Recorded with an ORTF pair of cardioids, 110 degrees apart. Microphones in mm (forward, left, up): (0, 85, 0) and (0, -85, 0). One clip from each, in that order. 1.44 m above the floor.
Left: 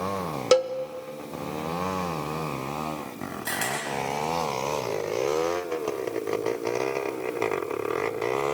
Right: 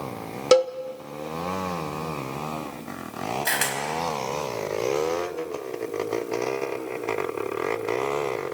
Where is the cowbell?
10° right, 0.8 m.